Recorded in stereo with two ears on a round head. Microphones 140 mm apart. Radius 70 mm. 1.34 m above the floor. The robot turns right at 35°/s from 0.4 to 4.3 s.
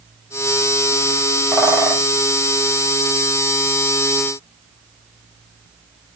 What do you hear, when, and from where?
1.5 s a bird: centre (ahead or behind), 2 m; by 2.0 s 15° right (ahead or behind), 2 m